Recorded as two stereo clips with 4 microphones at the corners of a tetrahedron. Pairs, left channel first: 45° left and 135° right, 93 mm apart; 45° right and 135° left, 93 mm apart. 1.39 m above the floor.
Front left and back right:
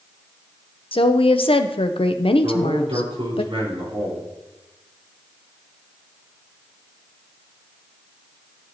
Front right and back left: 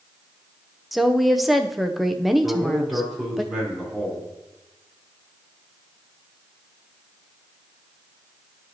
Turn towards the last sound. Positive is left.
turn(degrees=-130)